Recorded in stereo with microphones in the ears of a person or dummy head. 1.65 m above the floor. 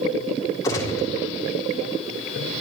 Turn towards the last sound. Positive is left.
turn(degrees=20)  # may be behind; listen again after turning